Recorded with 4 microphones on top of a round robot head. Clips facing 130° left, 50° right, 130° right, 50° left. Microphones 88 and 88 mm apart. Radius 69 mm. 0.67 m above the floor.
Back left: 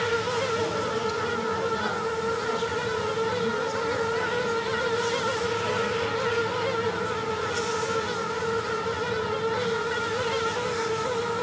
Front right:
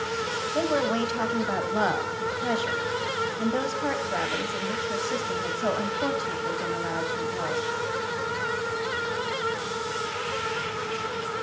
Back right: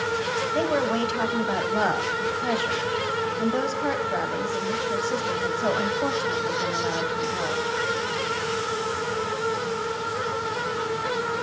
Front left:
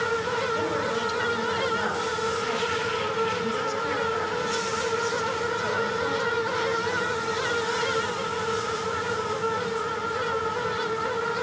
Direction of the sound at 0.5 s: 90° right.